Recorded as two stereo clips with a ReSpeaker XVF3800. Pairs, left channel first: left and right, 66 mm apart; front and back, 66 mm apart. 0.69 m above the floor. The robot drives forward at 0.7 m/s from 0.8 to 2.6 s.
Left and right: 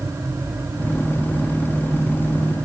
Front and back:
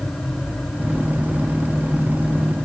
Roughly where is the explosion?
No explosion in this recording.